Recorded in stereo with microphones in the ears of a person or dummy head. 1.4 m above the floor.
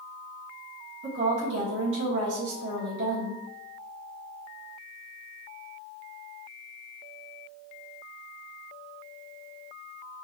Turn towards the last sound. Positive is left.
turn(degrees=-75)  # may be behind; listen again after turning